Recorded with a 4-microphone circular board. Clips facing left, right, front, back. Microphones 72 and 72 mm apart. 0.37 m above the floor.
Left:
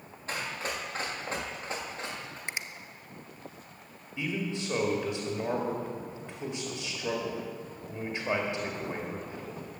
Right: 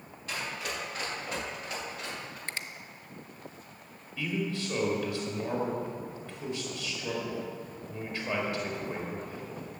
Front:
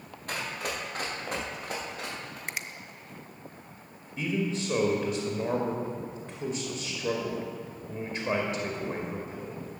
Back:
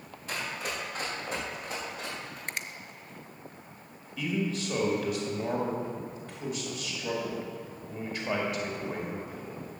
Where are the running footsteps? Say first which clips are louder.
Left 1 dB, front 1 dB; 35° left, 5 m; by 2.4 s 30° left, 6 m.